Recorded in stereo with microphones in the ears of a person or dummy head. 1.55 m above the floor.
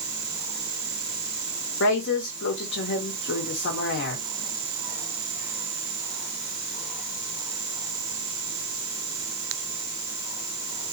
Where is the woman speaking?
65° left (ahead or behind), 2 m.